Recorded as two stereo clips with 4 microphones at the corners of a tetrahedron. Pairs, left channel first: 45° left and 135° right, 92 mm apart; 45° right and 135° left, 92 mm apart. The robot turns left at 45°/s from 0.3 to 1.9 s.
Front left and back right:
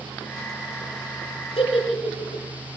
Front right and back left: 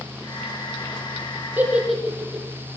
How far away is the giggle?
About 7 m.